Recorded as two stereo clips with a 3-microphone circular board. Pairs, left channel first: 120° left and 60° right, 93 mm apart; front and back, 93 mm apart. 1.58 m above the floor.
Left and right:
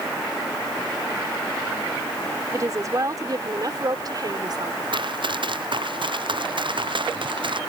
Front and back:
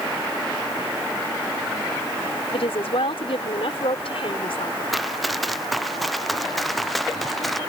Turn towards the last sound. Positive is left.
turn(degrees=-90)